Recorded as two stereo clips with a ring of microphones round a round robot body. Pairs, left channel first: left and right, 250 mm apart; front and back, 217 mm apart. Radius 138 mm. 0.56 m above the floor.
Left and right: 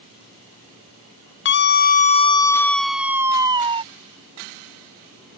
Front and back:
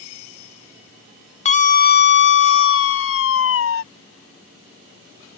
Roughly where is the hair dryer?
I don't hear a hair dryer.